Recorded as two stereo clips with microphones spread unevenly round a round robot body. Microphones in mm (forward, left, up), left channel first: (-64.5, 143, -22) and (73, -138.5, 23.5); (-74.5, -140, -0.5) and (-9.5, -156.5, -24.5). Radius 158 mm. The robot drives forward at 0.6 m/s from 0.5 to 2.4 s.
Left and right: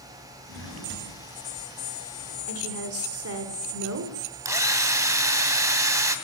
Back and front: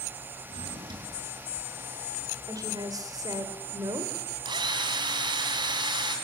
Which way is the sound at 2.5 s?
15° right.